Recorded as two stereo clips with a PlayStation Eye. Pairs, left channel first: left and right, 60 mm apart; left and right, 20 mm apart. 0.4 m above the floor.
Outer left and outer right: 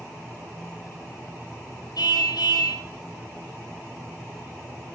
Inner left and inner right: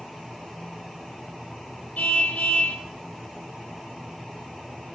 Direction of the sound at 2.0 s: 90° left.